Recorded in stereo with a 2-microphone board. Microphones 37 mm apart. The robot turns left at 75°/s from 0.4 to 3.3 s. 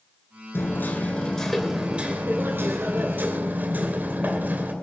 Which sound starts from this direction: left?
Hammering, at 0.5 s.